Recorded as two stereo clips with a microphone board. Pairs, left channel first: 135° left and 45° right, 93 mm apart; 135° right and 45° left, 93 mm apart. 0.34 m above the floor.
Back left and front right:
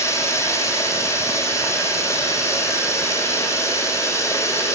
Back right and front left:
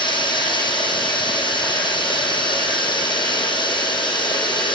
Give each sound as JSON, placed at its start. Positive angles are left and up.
{"t": 0.0, "sound": "running water", "azimuth_deg": -165, "distance_m": 8.5}